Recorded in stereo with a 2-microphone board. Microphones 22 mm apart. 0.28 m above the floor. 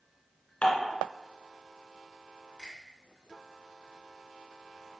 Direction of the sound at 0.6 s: 70° left (ahead or behind).